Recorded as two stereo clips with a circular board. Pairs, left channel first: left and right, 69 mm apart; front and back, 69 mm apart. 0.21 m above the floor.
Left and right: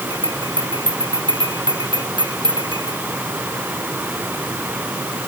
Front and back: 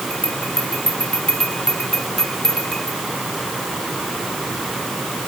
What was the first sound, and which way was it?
A bell, 85° right.